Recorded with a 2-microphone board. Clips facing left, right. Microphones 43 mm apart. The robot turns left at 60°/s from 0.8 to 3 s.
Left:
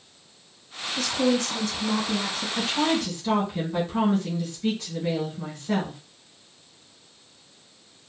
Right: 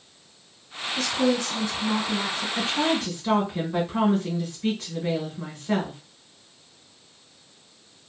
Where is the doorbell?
No doorbell in this recording.